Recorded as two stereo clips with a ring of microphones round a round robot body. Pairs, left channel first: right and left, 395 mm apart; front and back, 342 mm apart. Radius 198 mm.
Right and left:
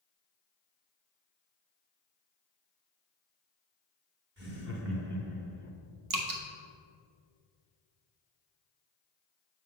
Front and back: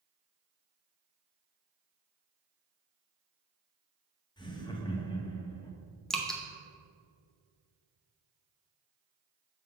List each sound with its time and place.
4.4 s laughter: 65° left, 1.0 m
6.1 s dripping: 90° left, 1.0 m